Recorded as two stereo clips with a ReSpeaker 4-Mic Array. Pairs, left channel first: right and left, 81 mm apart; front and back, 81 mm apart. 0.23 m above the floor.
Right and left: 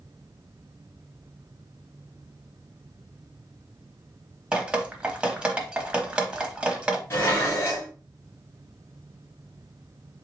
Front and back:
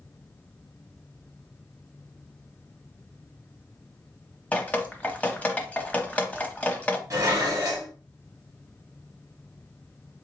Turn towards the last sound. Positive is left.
turn(degrees=-145)